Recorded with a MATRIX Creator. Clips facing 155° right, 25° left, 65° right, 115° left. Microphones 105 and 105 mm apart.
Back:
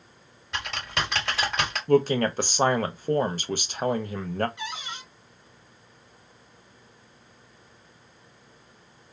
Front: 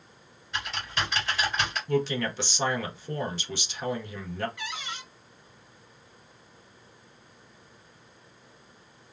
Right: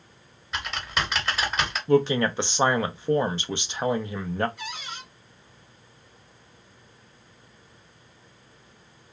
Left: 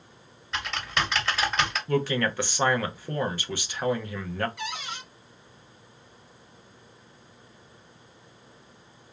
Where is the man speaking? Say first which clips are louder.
Back 8 dB, right 7 dB; 130° right, 0.5 m.